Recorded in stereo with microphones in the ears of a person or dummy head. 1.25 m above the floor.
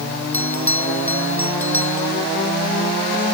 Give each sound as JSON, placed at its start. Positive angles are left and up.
{"t": 0.3, "sound": "a bell", "side_deg": 15}